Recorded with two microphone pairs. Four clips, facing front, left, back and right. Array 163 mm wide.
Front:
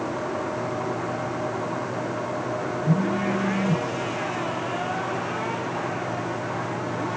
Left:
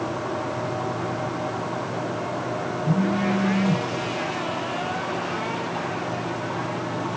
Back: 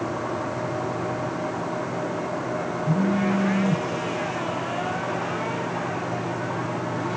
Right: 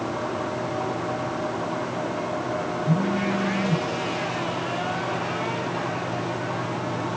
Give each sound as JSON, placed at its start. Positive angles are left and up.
{"t": 2.8, "sound": "a phone buzzing", "azimuth_deg": 30, "distance_m": 6.0}